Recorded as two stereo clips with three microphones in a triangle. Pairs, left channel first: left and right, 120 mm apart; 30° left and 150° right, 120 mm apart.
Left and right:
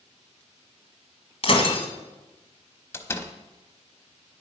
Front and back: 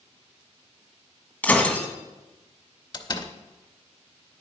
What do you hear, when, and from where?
1.4 s breaking glass: 105° left, 1.3 m
2.9 s a door slam: 35° left, 0.8 m